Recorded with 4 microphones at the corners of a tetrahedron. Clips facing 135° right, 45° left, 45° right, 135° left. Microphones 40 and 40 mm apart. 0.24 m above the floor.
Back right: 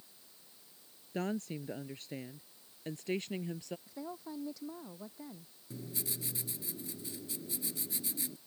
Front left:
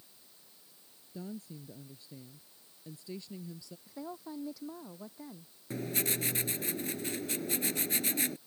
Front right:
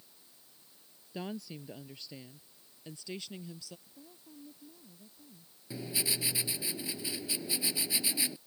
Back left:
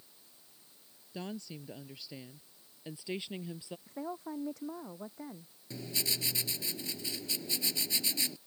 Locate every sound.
1.1 s a woman speaking: 125° right; by 3.8 s 165° right
3.9 s a woman speaking: 135° left
5.7 s writing: 35° left